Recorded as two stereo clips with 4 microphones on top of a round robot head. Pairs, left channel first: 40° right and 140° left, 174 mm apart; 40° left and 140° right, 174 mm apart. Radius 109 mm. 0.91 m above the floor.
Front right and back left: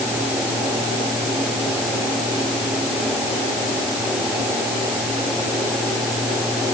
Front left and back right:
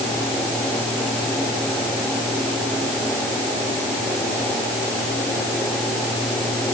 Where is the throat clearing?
No throat clearing in this recording.